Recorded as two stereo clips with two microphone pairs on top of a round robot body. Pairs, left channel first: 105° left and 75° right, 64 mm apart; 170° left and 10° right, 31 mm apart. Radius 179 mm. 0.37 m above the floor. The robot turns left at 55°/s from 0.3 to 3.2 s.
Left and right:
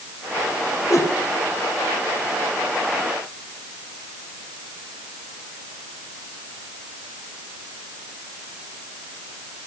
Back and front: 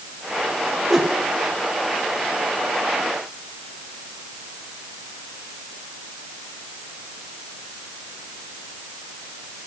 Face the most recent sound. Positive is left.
turn(degrees=-50)